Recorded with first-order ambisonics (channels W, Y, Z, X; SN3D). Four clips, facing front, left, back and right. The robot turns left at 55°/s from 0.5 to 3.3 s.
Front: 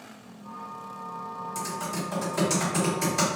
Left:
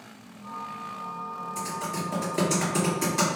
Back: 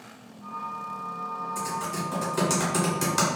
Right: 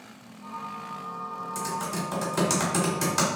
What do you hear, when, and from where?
1.6 s typing on a keyboard: 55° right, 1.5 m; by 3.4 s 150° right, 1.5 m